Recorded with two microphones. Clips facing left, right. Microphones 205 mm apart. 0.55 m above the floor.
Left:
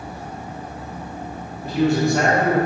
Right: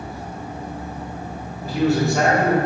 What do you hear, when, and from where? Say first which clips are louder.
1.6 s a man speaking: left 1 dB; centre (ahead or behind), 0.8 m